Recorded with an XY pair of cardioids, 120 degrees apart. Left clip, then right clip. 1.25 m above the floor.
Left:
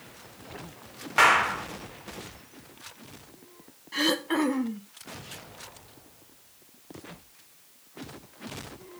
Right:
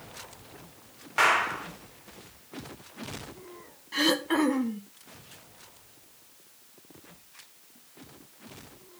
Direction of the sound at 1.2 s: 30° left.